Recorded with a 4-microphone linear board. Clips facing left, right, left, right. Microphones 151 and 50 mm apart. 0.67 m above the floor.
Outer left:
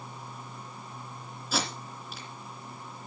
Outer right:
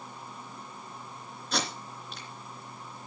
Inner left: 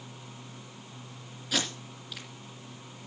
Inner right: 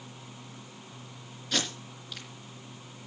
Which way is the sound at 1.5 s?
5° left (ahead or behind).